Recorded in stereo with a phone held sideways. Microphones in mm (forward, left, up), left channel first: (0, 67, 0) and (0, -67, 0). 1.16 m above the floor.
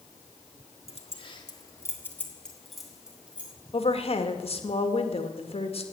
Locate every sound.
0.9 s keys jangling: 50° left (ahead or behind), 1.7 m; by 3.5 s 10° right (ahead or behind), 3 m
3.7 s a woman speaking: 45° left (ahead or behind), 1.9 m